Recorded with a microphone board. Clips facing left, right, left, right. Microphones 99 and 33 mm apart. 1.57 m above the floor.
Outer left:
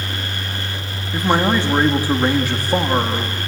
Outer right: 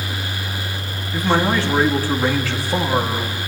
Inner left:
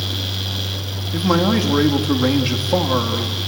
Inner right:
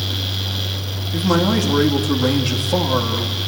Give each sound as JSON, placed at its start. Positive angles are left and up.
{"t": 1.1, "sound": "a man speaking", "side_deg": 15, "distance_m": 3.0}